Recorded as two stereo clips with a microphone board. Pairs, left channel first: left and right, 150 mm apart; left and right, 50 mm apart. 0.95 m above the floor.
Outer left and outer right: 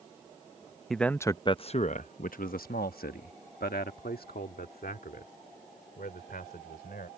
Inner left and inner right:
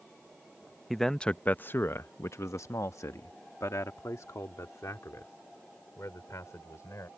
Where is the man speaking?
Centre (ahead or behind); by 7.1 s 80° left.